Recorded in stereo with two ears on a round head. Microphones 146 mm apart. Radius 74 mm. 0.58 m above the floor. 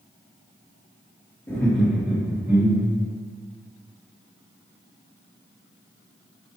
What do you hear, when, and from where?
1.5 s laughter: 15° left (ahead or behind), 1.3 m; by 3.1 s 30° right (ahead or behind), 1.2 m